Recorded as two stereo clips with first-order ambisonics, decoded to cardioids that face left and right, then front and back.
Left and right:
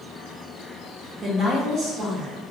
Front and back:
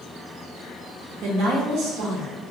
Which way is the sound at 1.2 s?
145° right.